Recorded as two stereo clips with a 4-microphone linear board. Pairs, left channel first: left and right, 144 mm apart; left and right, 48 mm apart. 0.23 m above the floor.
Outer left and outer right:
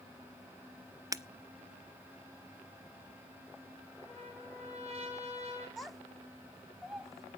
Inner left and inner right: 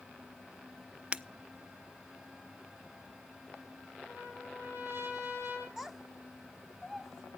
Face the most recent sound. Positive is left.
turn(degrees=0)  # may be behind; listen again after turning